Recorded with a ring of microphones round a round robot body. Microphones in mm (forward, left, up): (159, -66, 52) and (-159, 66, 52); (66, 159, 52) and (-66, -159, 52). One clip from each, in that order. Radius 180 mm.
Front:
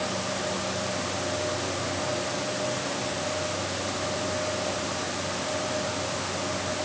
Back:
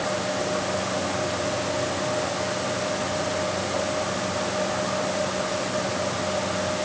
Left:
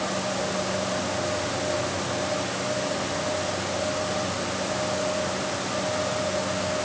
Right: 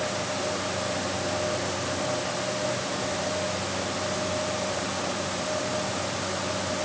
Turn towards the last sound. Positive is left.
No sound to turn to.